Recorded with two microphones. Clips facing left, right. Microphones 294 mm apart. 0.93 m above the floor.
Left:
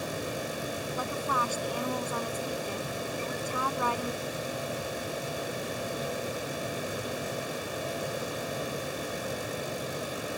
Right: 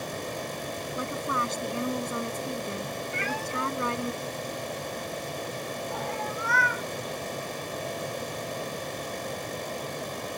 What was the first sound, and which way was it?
A woman speaking, 25° right (ahead or behind).